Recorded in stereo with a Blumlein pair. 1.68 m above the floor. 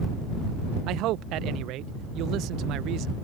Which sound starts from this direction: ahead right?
A man speaking, at 0.9 s.